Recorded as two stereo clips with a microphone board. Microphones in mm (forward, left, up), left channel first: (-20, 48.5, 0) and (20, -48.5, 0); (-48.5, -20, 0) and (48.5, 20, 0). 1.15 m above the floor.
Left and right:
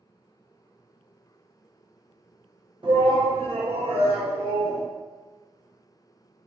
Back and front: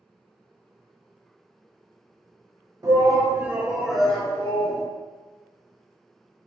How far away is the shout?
About 1.0 m.